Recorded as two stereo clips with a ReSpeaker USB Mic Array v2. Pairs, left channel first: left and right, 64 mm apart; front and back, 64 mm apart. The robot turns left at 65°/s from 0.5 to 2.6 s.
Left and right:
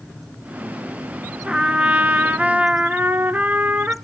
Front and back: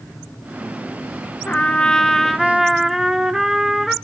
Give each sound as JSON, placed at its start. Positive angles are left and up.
{"t": 1.5, "sound": "a trumpet", "azimuth_deg": -25, "distance_m": 0.6}